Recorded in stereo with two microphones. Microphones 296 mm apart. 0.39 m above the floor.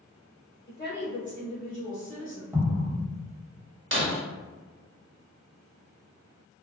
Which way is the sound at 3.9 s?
40° right (ahead or behind).